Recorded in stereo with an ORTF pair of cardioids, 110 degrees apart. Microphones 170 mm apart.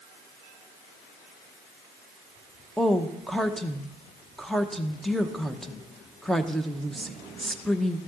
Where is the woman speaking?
Straight ahead, 0.7 m.